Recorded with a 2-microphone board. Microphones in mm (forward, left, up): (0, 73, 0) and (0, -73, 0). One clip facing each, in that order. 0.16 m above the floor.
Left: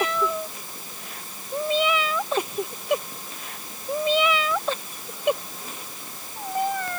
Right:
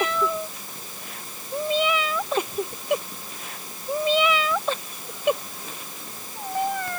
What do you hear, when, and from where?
Only background noise.